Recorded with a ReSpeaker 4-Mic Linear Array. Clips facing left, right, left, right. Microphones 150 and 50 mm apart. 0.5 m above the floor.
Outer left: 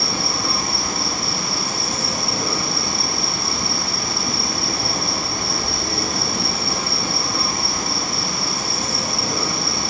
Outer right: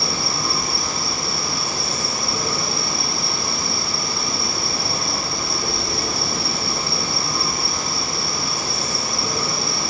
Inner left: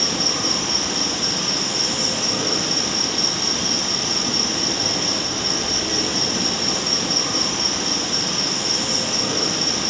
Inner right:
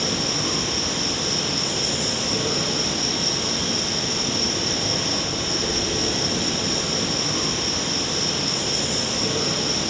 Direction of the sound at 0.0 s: 65° left (ahead or behind).